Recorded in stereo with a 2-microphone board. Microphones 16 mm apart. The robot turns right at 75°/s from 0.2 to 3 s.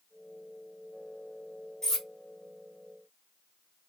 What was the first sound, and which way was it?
Cutlery clinking, 35° left (ahead or behind).